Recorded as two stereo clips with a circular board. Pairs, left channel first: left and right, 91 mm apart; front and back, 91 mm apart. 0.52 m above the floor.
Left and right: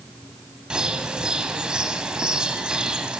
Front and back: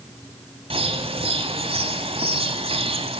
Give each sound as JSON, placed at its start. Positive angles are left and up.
{"t": 0.7, "sound": "a bird", "azimuth_deg": -170, "distance_m": 1.4}